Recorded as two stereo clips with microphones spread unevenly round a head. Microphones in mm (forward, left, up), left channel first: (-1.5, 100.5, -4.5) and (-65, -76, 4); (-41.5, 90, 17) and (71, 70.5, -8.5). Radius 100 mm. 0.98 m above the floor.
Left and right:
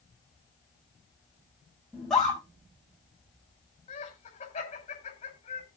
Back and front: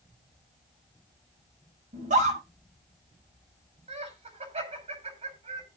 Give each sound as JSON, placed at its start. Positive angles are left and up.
{"t": 1.9, "sound": "a scream", "azimuth_deg": -15, "distance_m": 6.5}
{"t": 3.9, "sound": "laughter", "azimuth_deg": 10, "distance_m": 5.0}